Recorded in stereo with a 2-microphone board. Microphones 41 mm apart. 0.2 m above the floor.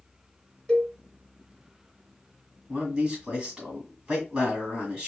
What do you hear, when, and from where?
0.7 s a cowbell: 10° left (ahead or behind), 1.7 m
2.7 s a man speaking: 20° right (ahead or behind), 1.5 m